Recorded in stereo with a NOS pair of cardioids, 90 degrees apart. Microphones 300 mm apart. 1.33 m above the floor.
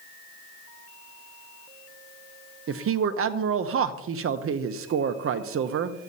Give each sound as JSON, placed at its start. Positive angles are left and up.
{"t": 2.7, "sound": "a man speaking", "azimuth_deg": -50, "distance_m": 0.8}